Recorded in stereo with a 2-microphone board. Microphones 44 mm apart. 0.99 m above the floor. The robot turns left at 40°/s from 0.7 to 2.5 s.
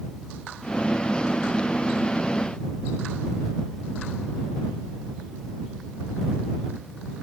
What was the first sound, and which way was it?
Only background noise.